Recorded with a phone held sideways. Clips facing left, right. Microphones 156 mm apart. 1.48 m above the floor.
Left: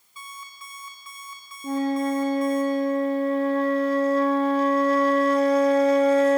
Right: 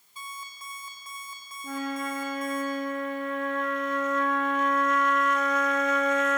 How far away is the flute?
About 0.5 m.